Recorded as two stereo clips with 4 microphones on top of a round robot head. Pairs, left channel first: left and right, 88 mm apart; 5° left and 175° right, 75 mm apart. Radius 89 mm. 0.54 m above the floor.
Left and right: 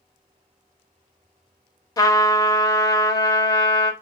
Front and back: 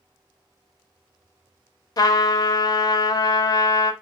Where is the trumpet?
40° left, 0.5 m.